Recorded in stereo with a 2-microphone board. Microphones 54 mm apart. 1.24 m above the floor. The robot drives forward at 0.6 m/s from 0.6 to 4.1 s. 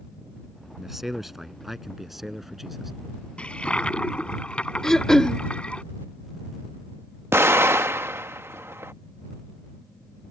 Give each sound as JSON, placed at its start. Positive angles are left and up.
{"t": 0.8, "sound": "a man speaking", "side_deg": -5}
{"t": 3.4, "sound": "a toilet flushing", "side_deg": 20}
{"t": 4.8, "sound": "throat clearing", "side_deg": 10}
{"t": 7.3, "sound": "an explosion", "side_deg": -50}